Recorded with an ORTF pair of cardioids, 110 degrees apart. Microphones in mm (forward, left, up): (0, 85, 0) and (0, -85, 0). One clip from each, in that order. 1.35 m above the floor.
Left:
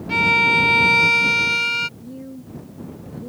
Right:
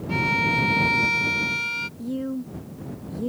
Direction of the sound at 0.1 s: 40° left.